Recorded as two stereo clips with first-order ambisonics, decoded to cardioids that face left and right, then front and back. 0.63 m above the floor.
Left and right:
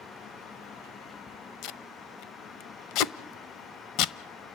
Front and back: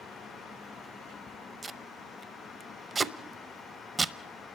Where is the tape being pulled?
105° left, 0.6 m.